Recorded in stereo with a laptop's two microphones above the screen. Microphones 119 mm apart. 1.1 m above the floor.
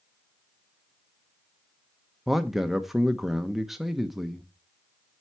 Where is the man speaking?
Centre (ahead or behind), 1.0 m.